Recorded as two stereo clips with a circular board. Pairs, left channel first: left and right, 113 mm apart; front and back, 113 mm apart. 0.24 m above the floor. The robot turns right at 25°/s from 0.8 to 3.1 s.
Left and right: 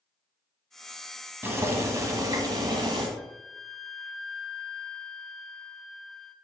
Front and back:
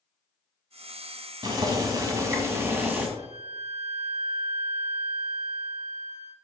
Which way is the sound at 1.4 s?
150° right.